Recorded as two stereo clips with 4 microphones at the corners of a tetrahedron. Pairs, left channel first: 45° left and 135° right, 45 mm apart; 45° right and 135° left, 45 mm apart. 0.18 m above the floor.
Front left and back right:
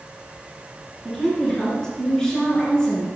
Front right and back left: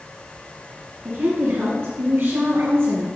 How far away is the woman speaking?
About 3 m.